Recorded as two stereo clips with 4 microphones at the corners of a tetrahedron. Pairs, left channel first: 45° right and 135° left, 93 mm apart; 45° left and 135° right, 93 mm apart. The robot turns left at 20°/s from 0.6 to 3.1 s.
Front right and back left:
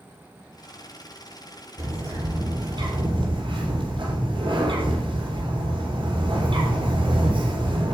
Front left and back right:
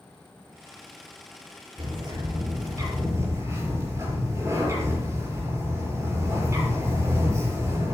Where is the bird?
170° right, 6.5 m; by 8.0 s 165° left, 6.5 m.